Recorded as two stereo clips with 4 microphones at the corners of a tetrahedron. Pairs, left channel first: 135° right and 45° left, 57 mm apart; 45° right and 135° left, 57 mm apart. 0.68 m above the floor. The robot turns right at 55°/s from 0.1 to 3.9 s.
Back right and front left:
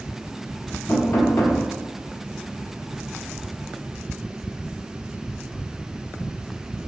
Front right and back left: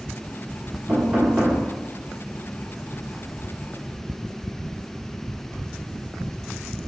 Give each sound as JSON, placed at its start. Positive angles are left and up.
{"t": 0.9, "sound": "knocking", "azimuth_deg": -175, "distance_m": 1.4}